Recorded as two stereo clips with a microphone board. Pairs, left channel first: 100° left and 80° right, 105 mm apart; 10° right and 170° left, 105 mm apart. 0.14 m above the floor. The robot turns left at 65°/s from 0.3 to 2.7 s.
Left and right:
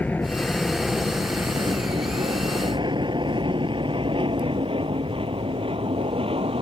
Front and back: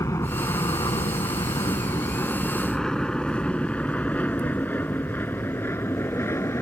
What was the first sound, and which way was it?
An aircraft, 30° left.